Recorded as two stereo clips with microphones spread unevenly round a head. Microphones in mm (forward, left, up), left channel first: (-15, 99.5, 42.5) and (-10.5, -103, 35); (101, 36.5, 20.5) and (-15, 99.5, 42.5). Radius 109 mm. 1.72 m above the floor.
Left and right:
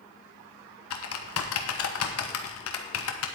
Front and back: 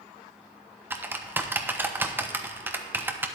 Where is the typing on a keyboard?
85° left, 1.1 m.